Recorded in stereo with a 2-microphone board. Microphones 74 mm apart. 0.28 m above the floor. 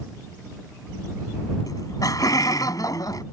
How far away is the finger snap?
No finger snap in this recording.